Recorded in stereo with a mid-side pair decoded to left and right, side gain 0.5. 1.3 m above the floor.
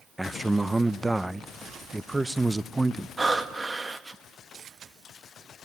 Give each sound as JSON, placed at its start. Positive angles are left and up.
{"t": 0.2, "sound": "a man speaking", "azimuth_deg": -10, "distance_m": 0.7}
{"t": 3.2, "sound": "breathing", "azimuth_deg": -20, "distance_m": 1.5}